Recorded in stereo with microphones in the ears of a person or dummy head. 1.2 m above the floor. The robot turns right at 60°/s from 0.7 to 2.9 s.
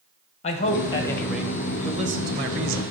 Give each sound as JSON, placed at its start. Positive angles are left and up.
{"t": 0.4, "sound": "a man speaking", "azimuth_deg": 140, "distance_m": 1.2}